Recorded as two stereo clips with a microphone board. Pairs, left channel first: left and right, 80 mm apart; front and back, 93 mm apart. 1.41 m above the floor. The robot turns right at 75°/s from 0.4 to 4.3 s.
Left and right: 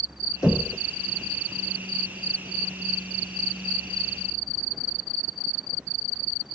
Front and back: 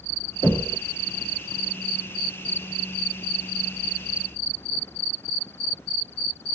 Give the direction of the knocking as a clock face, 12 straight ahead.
11 o'clock.